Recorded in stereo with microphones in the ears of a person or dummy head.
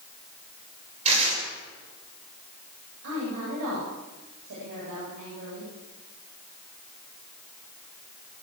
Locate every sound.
1.1 s tearing paper: 40° right (ahead or behind), 7 m
3.0 s a woman speaking: 70° right (ahead or behind), 10 m